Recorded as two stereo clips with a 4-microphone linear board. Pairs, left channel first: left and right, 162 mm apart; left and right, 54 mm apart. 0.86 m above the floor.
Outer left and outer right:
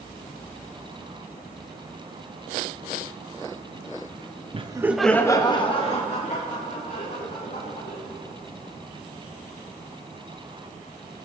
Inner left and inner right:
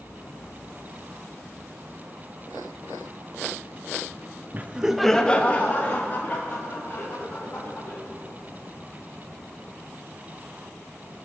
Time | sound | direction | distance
4.5 | laughter | 35° right (ahead or behind) | 0.6 m